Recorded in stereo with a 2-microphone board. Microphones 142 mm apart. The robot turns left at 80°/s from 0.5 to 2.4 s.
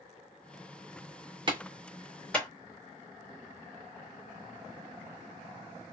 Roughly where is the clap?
Right.